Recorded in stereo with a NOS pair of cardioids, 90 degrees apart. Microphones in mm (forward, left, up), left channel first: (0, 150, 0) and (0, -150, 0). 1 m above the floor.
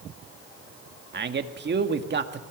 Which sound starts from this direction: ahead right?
A man speaking, at 1.1 s.